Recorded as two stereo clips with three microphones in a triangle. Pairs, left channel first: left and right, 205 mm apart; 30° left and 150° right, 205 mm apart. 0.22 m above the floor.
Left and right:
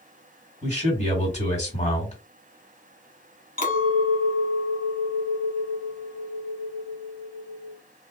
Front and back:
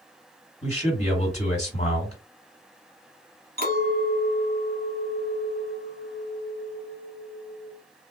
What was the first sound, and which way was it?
A man speaking, 60° left.